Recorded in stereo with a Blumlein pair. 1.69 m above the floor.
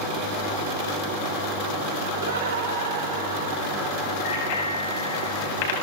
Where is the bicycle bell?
50° left, 7.5 m.